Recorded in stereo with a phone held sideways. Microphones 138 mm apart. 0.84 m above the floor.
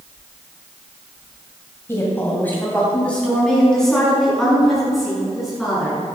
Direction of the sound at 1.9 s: 20° left (ahead or behind).